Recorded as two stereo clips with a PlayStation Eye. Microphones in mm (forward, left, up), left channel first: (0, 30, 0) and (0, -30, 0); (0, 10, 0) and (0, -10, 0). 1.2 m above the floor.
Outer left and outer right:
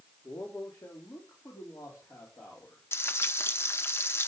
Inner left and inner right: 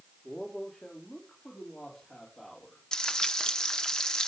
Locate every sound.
0.2 s a man speaking: 85° left, 2.5 m; by 2.8 s 60° left (ahead or behind), 3.5 m
2.9 s frying: 45° left (ahead or behind), 0.7 m